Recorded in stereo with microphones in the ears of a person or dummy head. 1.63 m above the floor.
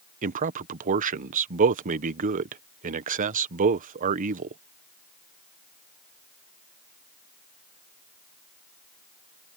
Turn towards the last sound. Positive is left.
turn(degrees=-40)  # may be behind; listen again after turning